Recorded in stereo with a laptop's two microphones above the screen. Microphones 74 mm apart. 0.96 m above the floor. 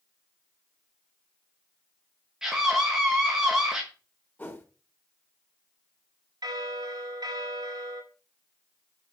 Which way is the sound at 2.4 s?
10° right (ahead or behind).